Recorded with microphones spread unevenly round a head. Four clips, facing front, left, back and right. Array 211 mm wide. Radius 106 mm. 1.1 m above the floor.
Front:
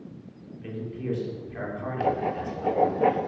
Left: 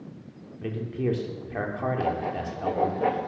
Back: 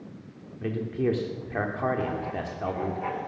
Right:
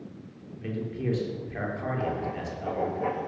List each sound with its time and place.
0.6 s a man speaking: 150° left, 3 m
2.0 s writing: 15° left, 0.6 m